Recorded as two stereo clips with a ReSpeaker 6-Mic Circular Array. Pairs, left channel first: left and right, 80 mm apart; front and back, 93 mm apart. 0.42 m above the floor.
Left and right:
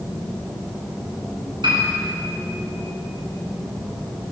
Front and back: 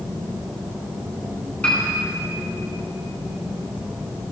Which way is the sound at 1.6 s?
75° right.